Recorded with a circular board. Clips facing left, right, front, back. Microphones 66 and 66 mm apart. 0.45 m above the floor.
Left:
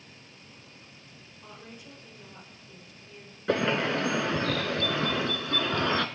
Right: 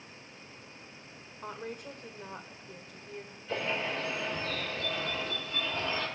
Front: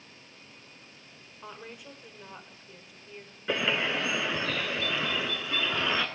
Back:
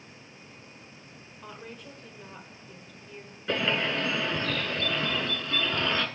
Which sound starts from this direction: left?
A bird, at 3.5 s.